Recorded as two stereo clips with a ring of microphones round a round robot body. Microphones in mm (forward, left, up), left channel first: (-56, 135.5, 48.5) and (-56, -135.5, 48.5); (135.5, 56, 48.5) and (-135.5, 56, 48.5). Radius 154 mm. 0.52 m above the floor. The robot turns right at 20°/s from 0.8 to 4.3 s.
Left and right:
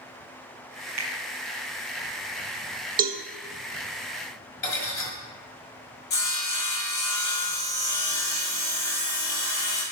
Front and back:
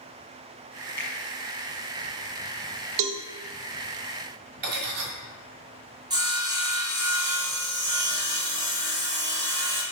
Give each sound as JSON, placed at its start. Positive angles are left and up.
{"t": 1.0, "sound": "a finger snap", "azimuth_deg": -75, "distance_m": 1.7}
{"t": 3.0, "sound": "a cowbell", "azimuth_deg": -150, "distance_m": 0.6}
{"t": 4.6, "sound": "cutlery clinking", "azimuth_deg": 135, "distance_m": 1.7}
{"t": 6.1, "sound": "sawing", "azimuth_deg": 105, "distance_m": 3.0}